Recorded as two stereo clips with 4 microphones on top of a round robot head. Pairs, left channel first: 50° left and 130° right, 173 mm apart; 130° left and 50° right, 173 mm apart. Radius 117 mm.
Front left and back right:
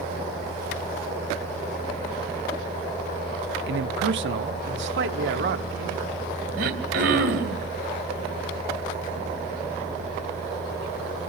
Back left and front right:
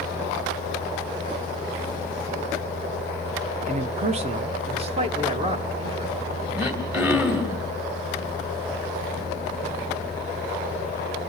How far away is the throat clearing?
About 2 m.